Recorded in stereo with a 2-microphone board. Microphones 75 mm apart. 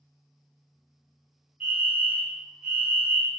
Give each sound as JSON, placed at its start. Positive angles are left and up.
{"t": 1.6, "sound": "a fire alarm", "side_deg": -20, "distance_m": 1.9}